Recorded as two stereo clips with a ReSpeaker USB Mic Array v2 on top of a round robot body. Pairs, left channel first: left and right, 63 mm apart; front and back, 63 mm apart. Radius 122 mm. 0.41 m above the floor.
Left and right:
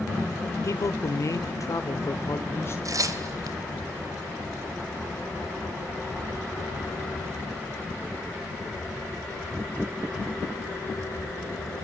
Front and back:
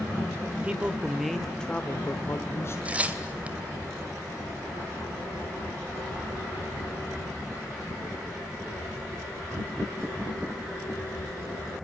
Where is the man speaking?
110° left, 1.6 m; by 2.8 s 40° left, 1.9 m.